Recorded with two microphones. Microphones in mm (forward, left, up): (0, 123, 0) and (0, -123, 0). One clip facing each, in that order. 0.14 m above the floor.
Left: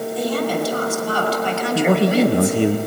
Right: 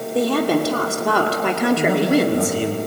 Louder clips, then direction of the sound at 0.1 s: Right 5 dB; 65° right (ahead or behind).